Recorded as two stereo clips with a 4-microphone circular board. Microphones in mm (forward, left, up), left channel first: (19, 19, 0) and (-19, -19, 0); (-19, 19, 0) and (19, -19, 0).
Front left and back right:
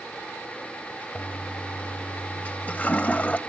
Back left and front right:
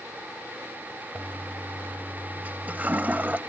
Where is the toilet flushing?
Straight ahead, 0.7 m.